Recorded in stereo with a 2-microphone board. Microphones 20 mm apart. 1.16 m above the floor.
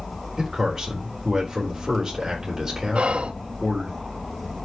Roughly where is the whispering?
Right.